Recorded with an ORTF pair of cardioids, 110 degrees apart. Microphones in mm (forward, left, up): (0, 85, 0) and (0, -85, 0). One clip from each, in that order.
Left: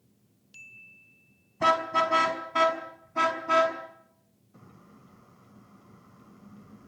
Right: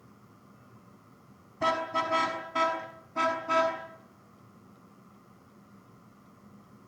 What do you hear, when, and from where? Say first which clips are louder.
1.6 s a car horn: left 5 dB; 15° left, 5.5 m; by 3.8 s 10° left, 6.5 m